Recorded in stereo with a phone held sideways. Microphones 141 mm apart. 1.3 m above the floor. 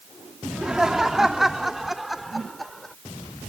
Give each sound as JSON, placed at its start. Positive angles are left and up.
{"t": 0.5, "sound": "laughter", "side_deg": -5}